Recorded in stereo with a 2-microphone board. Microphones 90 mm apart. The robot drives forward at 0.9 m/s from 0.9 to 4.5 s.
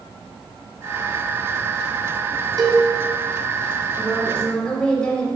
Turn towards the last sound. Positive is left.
turn(degrees=10)  # may be behind; listen again after turning